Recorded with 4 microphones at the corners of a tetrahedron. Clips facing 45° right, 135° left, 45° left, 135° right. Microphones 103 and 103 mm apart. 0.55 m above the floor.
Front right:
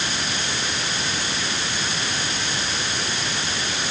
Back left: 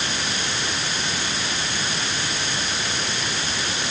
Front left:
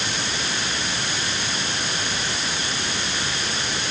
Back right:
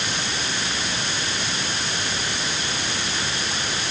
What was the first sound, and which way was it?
Only background noise.